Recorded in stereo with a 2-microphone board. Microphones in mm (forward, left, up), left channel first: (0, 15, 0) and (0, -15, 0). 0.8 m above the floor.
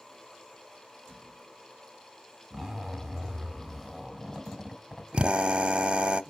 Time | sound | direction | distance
2.5 | a zipper | 5° left (ahead or behind) | 1.9 m
5.1 | a drill | 40° right (ahead or behind) | 0.7 m